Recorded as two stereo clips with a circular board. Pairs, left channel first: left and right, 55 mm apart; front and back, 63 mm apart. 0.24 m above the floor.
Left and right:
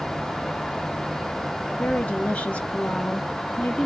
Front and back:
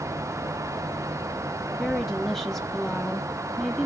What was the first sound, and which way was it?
A woman speaking, 75° left.